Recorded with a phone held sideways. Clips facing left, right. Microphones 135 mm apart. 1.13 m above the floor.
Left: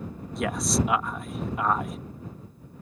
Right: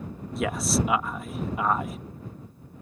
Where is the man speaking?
Centre (ahead or behind).